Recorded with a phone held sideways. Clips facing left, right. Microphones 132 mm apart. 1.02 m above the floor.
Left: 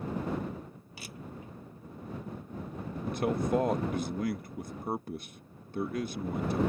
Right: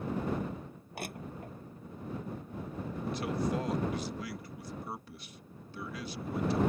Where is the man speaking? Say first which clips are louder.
Left 4 dB; 50° left (ahead or behind).